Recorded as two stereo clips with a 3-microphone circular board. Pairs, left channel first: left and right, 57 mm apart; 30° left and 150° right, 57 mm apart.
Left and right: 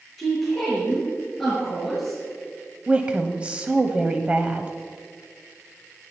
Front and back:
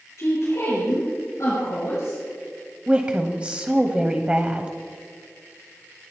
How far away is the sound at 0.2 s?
About 4.5 m.